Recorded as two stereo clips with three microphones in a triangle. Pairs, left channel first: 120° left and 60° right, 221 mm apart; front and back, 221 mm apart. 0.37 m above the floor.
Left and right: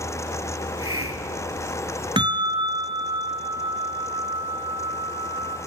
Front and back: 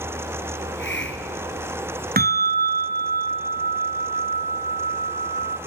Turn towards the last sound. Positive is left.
turn(degrees=-130)